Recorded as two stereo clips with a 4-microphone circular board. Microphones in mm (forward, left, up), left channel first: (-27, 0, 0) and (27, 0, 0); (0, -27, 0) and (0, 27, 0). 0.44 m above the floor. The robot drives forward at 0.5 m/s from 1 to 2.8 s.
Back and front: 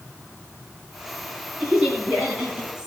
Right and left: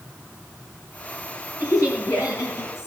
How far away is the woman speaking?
About 7.5 m.